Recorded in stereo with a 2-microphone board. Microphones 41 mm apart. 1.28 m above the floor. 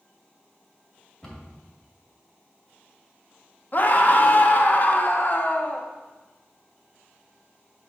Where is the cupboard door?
5° left (ahead or behind), 2 m.